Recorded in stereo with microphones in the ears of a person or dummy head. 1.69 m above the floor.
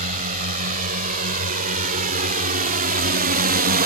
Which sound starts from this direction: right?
A drone, at 0.0 s.